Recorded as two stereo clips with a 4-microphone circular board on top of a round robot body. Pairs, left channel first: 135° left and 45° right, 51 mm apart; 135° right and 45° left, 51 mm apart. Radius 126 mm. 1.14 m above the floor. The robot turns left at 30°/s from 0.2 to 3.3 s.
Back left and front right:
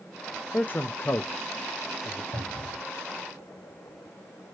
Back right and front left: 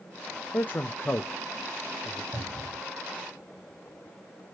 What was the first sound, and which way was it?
A man speaking, straight behind.